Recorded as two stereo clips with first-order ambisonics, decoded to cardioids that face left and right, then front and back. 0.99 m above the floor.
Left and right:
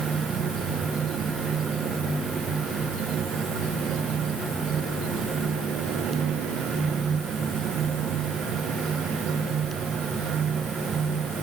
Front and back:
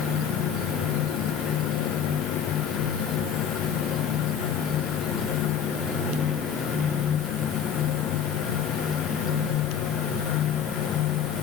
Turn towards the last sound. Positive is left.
No sound to turn to.